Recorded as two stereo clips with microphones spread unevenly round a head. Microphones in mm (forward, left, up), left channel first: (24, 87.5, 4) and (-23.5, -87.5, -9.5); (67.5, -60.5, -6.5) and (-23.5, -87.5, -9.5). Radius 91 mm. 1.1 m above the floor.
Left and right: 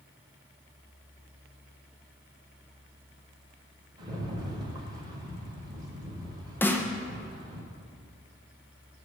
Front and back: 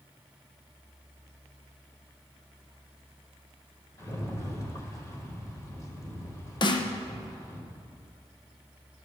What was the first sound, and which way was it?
A rattle, 35° right.